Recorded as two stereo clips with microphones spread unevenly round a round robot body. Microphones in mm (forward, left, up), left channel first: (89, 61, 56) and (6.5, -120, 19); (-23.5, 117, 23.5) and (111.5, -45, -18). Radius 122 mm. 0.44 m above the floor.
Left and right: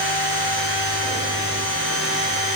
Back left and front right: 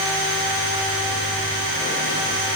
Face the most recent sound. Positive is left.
No sound to turn to.